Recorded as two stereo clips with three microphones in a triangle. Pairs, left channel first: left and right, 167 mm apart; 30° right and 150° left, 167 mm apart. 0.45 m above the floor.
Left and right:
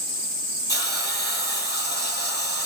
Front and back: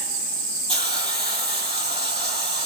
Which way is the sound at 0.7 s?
90° left.